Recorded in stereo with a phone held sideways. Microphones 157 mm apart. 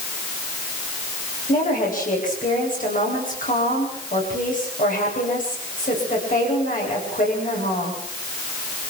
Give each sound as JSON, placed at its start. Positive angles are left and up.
{"t": 1.5, "sound": "a woman speaking", "side_deg": 55, "distance_m": 9.5}